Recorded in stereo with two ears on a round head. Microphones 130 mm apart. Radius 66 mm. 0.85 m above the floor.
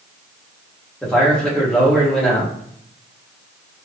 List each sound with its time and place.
1.0 s a man speaking: 5° left (ahead or behind), 1.3 m